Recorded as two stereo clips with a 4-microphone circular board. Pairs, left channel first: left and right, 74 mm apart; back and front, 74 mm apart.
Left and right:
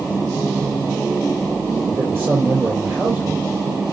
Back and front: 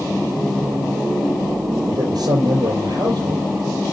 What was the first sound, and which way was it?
A man speaking, 30° right.